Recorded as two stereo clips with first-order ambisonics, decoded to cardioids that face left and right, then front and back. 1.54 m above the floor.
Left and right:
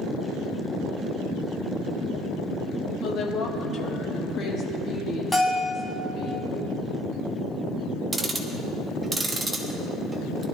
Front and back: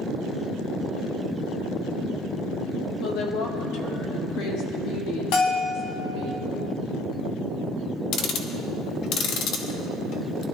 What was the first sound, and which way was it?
A woman speaking, 40° left.